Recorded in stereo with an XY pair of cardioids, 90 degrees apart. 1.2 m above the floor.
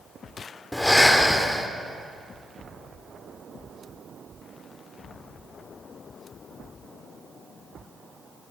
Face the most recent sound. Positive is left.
turn(degrees=10)